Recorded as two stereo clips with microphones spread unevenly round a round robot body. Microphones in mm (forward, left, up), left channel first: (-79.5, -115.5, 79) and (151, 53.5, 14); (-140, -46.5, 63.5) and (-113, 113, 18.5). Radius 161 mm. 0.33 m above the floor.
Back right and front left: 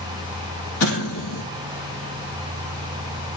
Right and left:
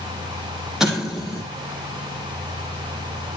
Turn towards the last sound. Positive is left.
turn(degrees=170)